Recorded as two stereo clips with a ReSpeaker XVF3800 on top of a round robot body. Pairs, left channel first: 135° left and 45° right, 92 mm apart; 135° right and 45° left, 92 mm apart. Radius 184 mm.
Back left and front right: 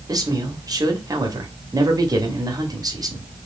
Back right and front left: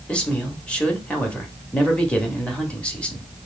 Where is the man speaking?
60° right, 1.6 m.